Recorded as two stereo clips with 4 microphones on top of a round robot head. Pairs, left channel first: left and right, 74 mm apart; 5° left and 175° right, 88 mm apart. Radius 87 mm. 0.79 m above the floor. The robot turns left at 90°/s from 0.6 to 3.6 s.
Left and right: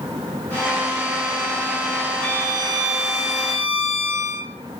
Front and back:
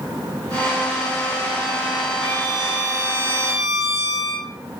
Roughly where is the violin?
Right.